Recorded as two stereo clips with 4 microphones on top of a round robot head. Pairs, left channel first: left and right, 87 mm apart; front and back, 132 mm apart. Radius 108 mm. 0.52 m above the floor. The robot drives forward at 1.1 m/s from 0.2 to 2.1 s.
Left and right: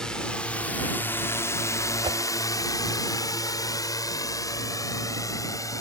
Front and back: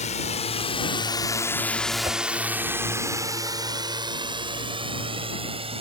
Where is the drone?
10° left; by 5.8 s 135° left.